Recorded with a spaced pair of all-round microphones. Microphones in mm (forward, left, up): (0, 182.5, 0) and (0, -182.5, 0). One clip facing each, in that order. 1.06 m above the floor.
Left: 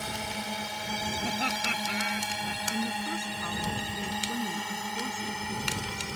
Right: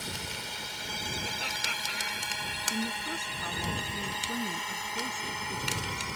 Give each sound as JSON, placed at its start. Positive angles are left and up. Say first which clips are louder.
{"t": 0.0, "sound": "a drone", "louder": "left 5 dB", "side_deg": 70}
{"t": 1.2, "sound": "laughter", "louder": "left 8 dB", "side_deg": 75}
{"t": 2.7, "sound": "a woman speaking", "louder": "left 1 dB", "side_deg": 5}